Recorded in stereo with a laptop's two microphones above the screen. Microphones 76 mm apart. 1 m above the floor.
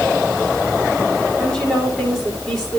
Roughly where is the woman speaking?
Centre.